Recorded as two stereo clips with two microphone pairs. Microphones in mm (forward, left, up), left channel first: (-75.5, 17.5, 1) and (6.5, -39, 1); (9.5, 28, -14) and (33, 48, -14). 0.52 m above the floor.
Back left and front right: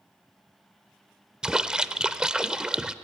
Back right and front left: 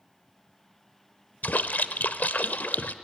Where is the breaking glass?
I don't hear breaking glass.